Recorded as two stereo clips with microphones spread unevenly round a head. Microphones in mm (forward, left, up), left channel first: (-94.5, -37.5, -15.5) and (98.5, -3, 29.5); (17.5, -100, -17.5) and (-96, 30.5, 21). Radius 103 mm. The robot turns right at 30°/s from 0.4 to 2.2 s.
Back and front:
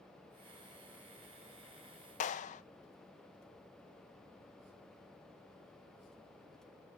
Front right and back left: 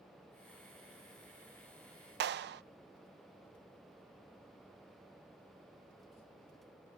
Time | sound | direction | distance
2.2 | a clap | 155° left | 0.6 m